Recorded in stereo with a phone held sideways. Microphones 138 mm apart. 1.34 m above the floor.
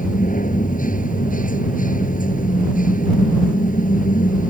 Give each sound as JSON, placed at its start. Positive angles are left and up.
{"t": 0.0, "sound": "a machine running", "side_deg": 75}